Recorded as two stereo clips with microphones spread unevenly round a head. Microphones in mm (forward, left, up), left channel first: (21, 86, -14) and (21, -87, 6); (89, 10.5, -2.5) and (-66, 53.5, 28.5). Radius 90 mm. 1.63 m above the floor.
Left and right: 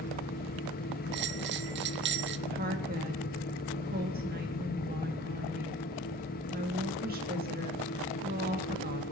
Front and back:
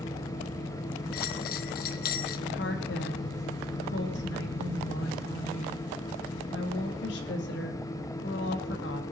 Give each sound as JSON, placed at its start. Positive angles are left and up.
{"t": 0.0, "sound": "a fan", "azimuth_deg": 60, "distance_m": 1.2}
{"t": 1.1, "sound": "a bell", "azimuth_deg": -60, "distance_m": 0.8}
{"t": 2.5, "sound": "a woman speaking", "azimuth_deg": -50, "distance_m": 2.5}